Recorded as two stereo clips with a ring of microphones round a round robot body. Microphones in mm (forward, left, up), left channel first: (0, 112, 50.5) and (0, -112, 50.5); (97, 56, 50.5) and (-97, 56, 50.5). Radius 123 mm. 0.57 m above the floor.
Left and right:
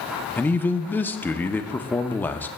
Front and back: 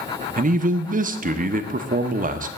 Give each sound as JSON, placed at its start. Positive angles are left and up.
{"t": 0.4, "sound": "a man speaking", "azimuth_deg": 170, "distance_m": 0.7}